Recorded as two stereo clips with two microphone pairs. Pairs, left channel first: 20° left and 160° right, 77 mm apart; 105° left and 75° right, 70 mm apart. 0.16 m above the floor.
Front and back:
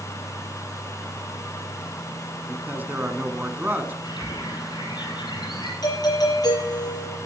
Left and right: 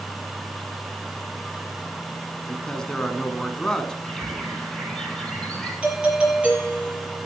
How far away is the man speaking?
About 1.3 m.